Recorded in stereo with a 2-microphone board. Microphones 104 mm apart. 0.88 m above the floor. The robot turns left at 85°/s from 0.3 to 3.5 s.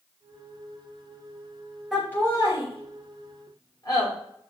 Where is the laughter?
Centre (ahead or behind), 3 m; by 4.1 s 45° left (ahead or behind), 3 m.